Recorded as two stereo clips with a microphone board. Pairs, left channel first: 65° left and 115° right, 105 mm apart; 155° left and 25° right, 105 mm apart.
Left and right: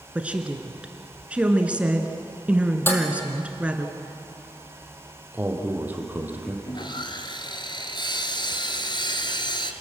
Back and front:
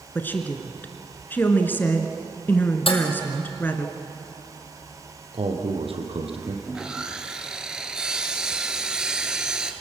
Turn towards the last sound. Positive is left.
turn(degrees=55)